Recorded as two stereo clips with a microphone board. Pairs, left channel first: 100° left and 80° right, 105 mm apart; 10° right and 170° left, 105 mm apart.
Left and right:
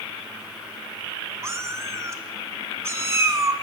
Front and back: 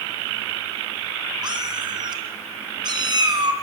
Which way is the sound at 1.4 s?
145° right.